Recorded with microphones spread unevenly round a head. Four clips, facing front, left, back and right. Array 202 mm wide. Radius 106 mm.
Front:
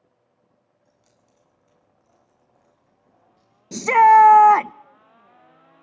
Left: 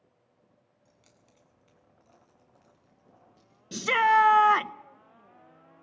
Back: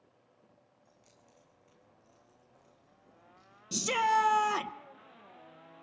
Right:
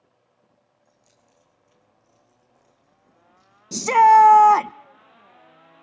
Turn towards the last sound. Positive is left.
turn(degrees=-25)